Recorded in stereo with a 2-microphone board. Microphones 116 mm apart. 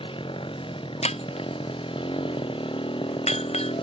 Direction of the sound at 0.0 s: 50° left (ahead or behind).